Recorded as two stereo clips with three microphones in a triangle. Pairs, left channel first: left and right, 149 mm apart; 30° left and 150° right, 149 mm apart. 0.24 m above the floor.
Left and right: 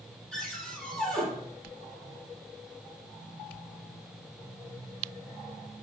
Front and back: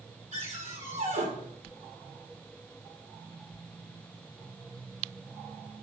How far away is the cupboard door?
About 6 m.